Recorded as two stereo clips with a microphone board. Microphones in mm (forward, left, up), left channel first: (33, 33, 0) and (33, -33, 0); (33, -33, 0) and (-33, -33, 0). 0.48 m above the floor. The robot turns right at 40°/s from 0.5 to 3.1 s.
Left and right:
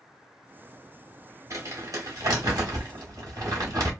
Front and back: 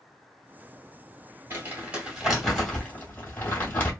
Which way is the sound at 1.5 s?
125° right.